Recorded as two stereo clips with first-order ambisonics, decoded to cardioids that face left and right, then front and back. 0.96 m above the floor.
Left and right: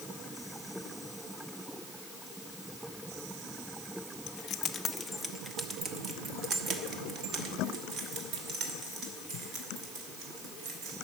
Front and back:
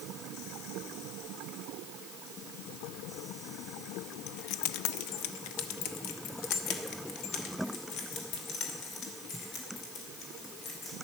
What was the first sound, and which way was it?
Keys jangling, 45° left.